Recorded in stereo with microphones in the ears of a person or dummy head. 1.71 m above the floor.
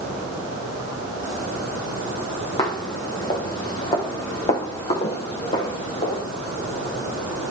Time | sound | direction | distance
2.6 | footsteps | 30° left (ahead or behind) | 5 m